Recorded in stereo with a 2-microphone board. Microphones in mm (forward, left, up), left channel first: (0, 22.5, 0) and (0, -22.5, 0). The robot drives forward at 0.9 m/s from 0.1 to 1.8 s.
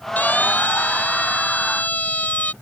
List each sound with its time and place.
0.2 s a siren: 40° left (ahead or behind)